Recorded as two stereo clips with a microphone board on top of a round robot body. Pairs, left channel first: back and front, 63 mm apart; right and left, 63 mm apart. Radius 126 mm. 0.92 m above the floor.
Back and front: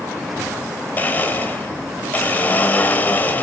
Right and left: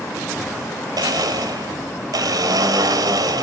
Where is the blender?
115° left, 1.8 m.